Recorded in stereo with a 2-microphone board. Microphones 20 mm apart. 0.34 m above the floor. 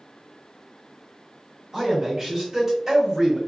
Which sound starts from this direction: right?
A man speaking, at 1.7 s.